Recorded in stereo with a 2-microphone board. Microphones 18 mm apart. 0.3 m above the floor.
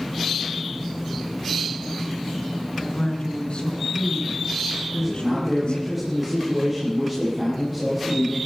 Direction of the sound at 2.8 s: 60° left (ahead or behind).